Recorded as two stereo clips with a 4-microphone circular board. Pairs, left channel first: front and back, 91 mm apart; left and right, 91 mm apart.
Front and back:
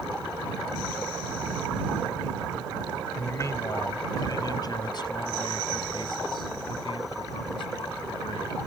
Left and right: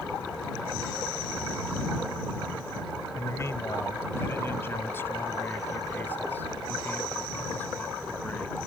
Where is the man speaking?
45° left; by 8.6 s 15° left.